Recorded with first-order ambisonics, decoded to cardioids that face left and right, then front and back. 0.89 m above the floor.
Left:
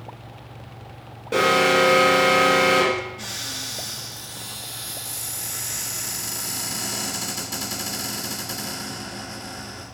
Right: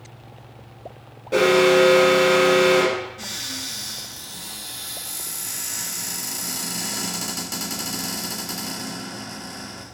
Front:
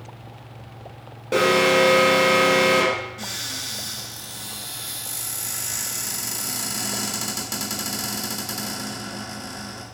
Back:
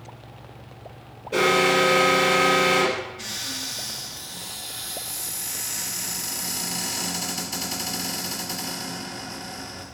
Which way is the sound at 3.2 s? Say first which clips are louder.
Even, front 1 dB; 20° right.